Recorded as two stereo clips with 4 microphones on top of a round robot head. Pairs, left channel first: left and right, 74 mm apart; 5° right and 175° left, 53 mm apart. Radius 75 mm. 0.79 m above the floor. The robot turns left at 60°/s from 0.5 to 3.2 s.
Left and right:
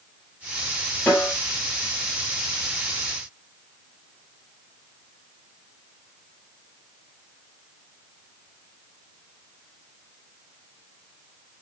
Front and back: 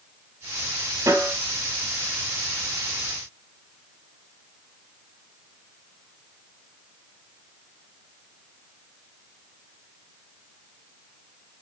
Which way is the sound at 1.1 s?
170° left.